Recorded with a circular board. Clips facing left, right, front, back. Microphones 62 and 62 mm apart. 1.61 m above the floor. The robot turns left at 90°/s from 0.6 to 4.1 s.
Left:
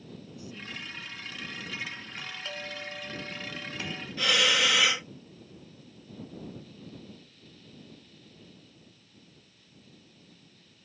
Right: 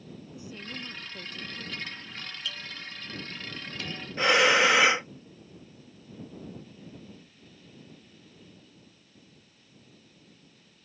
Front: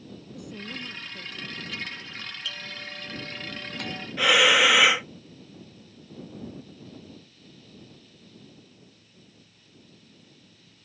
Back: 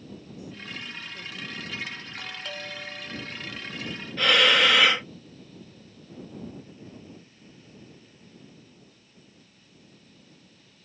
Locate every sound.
0.3 s a woman speaking: 25° right; by 2.0 s 150° right
2.2 s a doorbell: 165° left; by 4.1 s 5° right
4.2 s breathing: 75° right